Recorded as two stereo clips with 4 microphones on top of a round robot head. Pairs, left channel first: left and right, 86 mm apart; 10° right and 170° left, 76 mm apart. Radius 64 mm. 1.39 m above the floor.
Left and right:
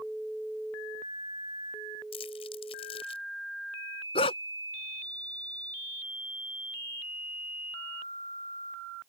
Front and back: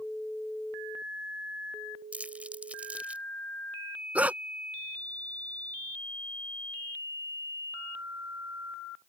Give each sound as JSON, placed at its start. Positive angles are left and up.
{"t": 2.1, "sound": "crumpling", "azimuth_deg": 100}
{"t": 4.2, "sound": "a dog barking", "azimuth_deg": 100}